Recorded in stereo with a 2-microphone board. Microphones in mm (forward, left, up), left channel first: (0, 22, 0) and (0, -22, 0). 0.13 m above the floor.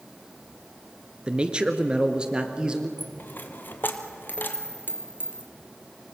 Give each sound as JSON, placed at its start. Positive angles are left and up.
{"t": 1.3, "sound": "a man speaking", "side_deg": -20, "distance_m": 1.4}
{"t": 3.0, "sound": "a dropped coin", "side_deg": 50, "distance_m": 1.6}